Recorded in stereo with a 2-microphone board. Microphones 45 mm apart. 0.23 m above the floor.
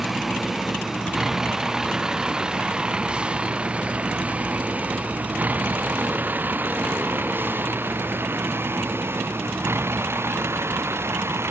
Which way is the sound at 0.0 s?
5° right (ahead or behind).